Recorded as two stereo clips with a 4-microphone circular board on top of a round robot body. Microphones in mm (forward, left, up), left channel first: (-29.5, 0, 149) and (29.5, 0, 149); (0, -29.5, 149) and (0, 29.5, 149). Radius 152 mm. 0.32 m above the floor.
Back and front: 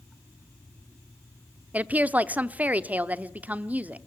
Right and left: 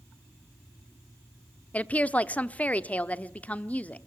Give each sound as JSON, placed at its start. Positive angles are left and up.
{"t": 1.7, "sound": "a woman speaking", "azimuth_deg": -45, "distance_m": 1.1}